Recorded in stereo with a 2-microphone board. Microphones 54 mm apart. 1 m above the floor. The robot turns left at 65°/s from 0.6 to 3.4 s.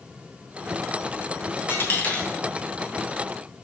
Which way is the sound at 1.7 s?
50° left (ahead or behind).